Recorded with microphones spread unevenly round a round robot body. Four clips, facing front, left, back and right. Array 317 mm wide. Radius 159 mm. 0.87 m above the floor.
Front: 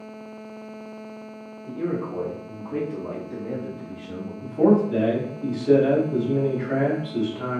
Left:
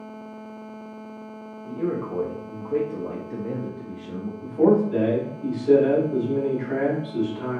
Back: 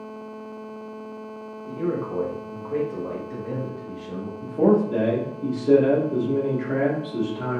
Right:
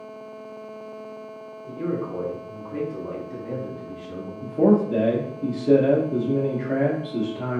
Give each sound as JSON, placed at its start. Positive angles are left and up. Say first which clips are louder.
{"t": 1.7, "sound": "a man speaking", "louder": "left 1 dB, back 1 dB", "azimuth_deg": 50, "distance_m": 0.9}
{"t": 4.4, "sound": "a man speaking", "louder": "even, front 1 dB", "azimuth_deg": -115, "distance_m": 0.9}